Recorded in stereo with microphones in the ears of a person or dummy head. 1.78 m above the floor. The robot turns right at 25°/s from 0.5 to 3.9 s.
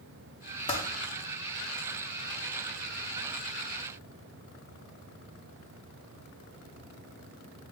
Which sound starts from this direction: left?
Typing on a keyboard, at 0.7 s.